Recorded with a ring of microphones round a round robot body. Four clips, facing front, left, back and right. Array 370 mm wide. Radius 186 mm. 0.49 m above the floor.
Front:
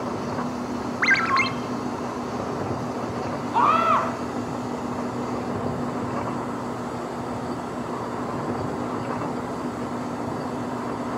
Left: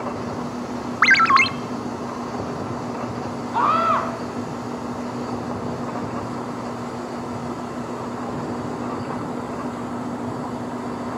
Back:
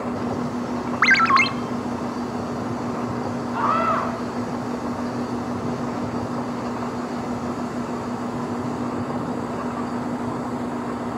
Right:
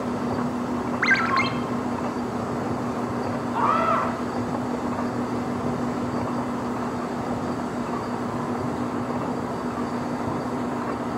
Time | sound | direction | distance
1.0 | a ringtone | 120° left | 1.0 m
3.5 | a scream | 35° left | 4.5 m